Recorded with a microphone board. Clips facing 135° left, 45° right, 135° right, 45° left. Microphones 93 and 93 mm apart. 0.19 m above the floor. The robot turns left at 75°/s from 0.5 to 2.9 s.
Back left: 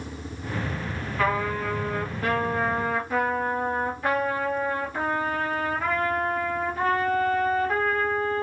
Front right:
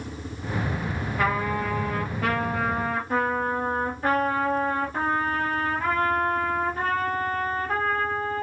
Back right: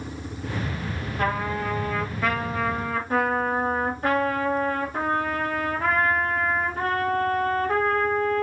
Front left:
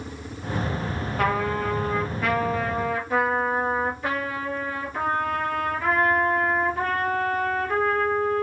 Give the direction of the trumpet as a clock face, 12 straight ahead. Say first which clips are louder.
Even, front left 2 dB; 11 o'clock.